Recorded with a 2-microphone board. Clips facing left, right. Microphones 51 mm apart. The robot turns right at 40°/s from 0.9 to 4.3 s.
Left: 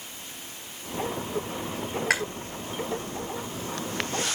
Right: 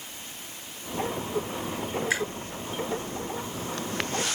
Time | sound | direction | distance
2.1 | chewing | 65° left (ahead or behind) | 3.5 m